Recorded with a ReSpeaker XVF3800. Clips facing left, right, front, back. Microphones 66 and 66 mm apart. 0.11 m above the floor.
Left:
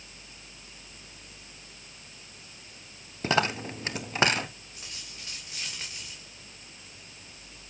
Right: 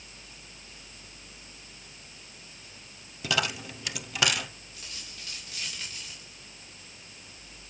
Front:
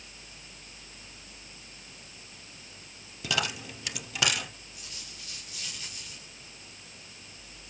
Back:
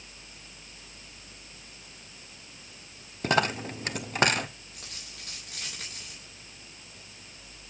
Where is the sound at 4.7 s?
155° left, 7 m.